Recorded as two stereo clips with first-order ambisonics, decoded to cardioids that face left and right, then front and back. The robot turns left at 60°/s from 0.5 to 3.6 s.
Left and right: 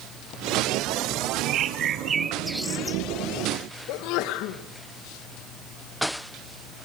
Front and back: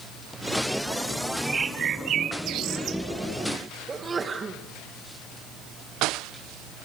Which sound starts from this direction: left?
A sneeze, at 3.9 s.